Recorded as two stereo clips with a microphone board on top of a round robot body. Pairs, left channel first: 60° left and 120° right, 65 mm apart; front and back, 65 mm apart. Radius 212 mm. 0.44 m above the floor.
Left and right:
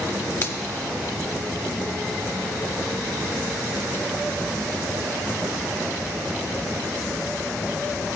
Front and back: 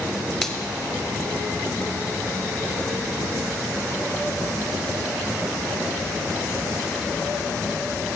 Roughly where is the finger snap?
Left.